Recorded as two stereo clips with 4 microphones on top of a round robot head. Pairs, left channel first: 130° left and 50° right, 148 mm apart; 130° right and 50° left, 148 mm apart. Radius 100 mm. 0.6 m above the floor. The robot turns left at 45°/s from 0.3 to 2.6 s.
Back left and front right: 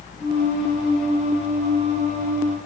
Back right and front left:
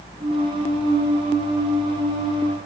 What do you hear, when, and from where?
Only background noise.